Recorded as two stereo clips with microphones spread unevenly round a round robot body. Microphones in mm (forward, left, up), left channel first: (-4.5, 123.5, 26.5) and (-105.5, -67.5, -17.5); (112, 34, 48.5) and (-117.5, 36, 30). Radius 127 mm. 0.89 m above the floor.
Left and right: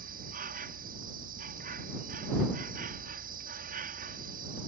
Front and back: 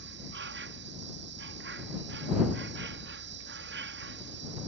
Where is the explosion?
No explosion in this recording.